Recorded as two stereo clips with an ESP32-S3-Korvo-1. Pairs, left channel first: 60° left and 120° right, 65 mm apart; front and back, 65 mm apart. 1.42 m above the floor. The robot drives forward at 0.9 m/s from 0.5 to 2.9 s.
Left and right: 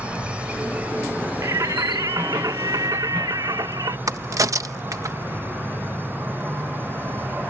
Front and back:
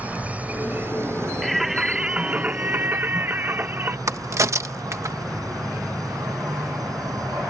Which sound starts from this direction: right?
Singing, at 1.4 s.